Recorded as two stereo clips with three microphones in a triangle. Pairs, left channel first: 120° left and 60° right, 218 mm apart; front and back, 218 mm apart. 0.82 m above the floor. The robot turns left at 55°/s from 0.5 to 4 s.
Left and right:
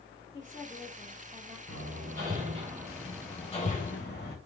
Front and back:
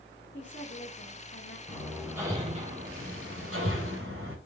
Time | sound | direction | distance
0.3 | a woman speaking | 55° left | 2.0 m
1.7 | hammering | 75° right | 3 m